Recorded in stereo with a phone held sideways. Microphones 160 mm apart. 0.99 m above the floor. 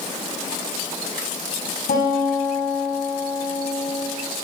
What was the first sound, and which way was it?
A guitar, 80° left.